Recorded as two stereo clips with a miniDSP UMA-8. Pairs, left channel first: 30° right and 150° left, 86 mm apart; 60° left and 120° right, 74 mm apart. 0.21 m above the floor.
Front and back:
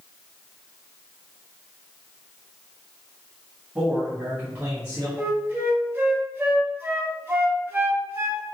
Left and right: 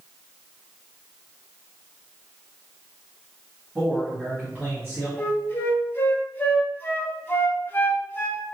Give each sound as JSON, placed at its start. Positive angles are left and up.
{"t": 3.8, "sound": "a man speaking", "azimuth_deg": -150, "distance_m": 1.3}
{"t": 5.2, "sound": "a flute", "azimuth_deg": 105, "distance_m": 0.7}